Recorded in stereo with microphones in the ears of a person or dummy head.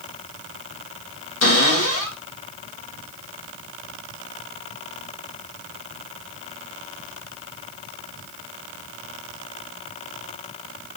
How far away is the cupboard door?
About 3.5 m.